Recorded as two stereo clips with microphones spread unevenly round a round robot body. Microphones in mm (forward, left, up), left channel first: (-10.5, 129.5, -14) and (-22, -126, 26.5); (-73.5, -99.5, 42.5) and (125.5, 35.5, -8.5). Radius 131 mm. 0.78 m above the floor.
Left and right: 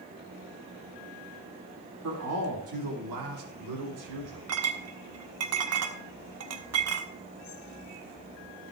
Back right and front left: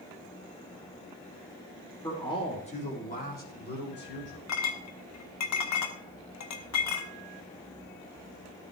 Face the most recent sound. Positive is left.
turn(degrees=-125)